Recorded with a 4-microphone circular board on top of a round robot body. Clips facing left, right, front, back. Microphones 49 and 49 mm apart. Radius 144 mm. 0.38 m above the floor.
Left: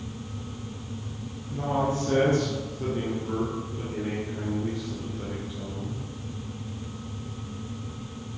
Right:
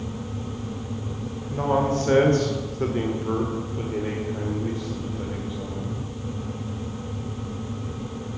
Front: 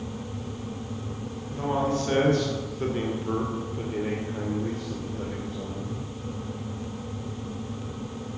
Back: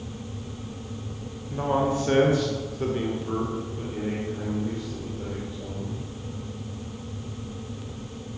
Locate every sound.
1.5 s a man speaking: 120° right, 2.5 m; by 6.1 s 5° right, 3.5 m